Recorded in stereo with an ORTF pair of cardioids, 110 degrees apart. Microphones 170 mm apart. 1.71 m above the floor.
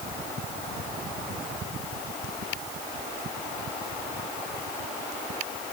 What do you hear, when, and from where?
Only background noise.